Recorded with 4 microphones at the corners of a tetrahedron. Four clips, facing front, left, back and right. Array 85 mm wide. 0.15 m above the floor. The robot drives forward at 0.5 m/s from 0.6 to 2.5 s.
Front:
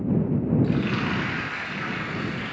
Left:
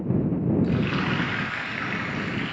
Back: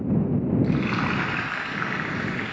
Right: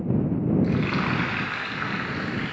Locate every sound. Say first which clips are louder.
0.6 s frying: even, back 1 dB; 130° right, 0.8 m; by 2.5 s 170° right, 1.3 m